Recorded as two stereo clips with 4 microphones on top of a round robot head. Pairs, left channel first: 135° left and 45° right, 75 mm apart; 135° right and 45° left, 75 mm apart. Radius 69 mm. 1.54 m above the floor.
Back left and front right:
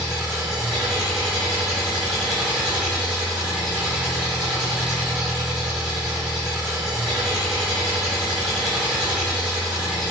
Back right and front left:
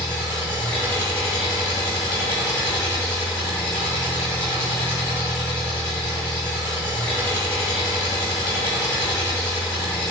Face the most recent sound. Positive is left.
turn(degrees=-125)